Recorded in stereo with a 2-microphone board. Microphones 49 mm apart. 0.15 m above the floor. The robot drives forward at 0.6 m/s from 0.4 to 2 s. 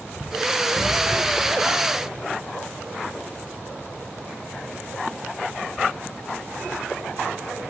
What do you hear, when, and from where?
0.7 s a cupboard door: 65° left (ahead or behind), 6 m